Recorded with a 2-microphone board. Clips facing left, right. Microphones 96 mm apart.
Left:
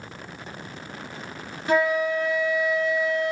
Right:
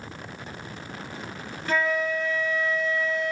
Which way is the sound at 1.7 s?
15° left (ahead or behind).